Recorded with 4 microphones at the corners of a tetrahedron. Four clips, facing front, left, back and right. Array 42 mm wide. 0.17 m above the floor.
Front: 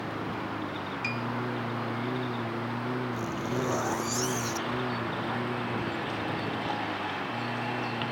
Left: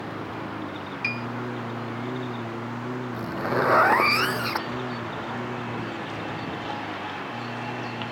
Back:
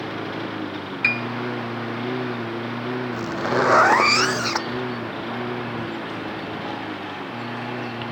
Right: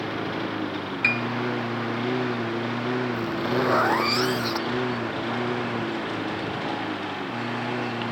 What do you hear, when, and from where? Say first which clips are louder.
0.0 s a lawn mower: right 5 dB, back 5 dB; 135° right; by 8.1 s 115° right
1.0 s a piano: right 6 dB, back 13 dB; 150° right
3.1 s a zipper: right 1 dB, back 9 dB; 165° left